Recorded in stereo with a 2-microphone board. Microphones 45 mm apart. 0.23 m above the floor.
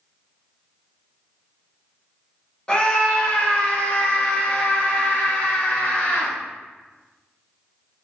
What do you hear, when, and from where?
2.7 s a scream: 20° left (ahead or behind), 1.4 m; by 6.3 s 45° left (ahead or behind), 3 m